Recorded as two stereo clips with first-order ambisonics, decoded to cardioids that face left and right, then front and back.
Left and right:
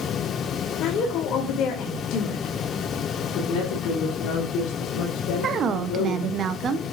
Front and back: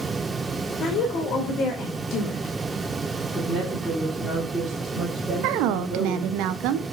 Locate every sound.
0.8 s a woman speaking: 55° left, 3 m
3.3 s a woman speaking: 90° left, 3 m
5.4 s a woman speaking: 150° right, 0.9 m